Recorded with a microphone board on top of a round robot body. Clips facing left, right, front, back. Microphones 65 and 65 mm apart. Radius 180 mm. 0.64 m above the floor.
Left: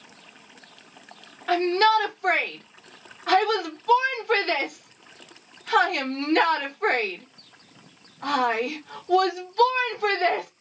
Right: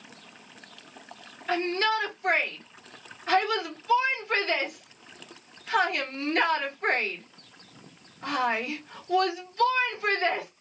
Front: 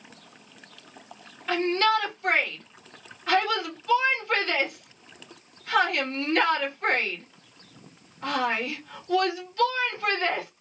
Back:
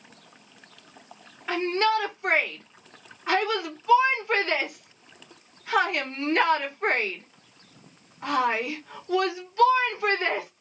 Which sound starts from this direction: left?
A shout, at 1.5 s.